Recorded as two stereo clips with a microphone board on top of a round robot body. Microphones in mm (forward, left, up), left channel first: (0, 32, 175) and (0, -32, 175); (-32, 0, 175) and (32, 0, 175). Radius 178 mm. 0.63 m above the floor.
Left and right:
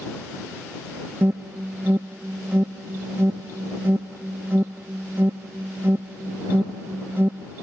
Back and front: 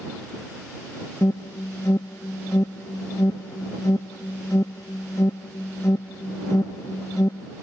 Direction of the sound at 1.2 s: 145° right.